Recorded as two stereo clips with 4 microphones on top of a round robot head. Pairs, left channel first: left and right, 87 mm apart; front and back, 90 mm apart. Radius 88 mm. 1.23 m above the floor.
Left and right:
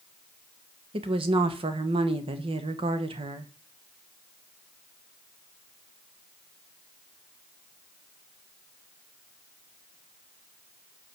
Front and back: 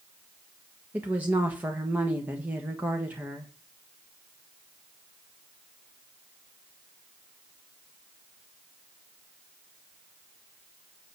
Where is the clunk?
No clunk in this recording.